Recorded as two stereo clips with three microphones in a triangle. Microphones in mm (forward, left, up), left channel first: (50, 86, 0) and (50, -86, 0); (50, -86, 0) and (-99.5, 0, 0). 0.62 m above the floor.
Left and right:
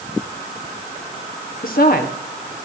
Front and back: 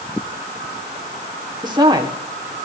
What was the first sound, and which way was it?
A woman speaking, 95° left.